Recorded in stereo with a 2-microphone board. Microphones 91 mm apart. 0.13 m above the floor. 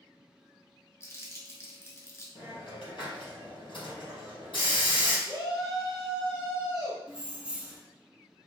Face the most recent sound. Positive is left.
turn(degrees=-10)  # may be behind; listen again after turning